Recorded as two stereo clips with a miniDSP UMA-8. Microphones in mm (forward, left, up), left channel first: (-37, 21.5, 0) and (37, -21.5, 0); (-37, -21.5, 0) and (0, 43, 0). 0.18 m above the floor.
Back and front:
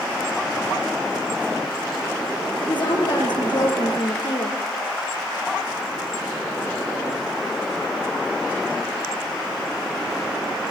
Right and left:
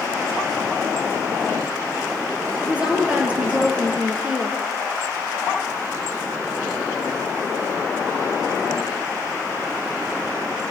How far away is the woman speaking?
About 5 m.